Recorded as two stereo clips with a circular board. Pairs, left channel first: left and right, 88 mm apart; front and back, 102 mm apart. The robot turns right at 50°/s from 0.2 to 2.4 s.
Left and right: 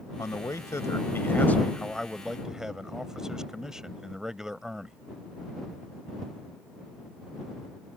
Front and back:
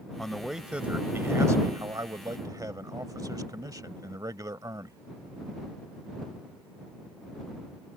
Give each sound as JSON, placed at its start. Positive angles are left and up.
{"t": 0.2, "sound": "a man speaking", "azimuth_deg": 80}